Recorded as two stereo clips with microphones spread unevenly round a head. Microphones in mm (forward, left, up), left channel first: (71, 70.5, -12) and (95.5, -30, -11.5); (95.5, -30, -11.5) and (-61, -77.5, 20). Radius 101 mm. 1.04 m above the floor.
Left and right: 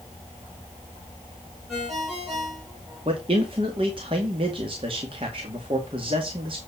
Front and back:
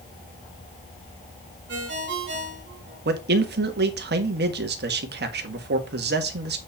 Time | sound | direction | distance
1.7 | a ringtone | 165° right | 3 m
3.0 | a man speaking | 140° right | 1.6 m